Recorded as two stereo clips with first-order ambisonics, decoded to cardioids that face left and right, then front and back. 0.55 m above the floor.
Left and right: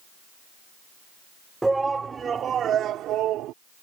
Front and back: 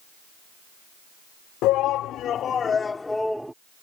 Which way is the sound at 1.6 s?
10° right.